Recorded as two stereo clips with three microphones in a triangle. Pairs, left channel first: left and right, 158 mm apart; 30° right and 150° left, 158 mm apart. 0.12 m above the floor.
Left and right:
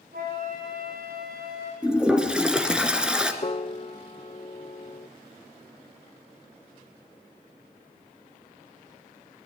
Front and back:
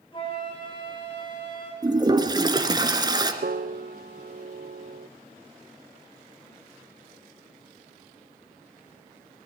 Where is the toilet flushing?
170° right, 1.9 m.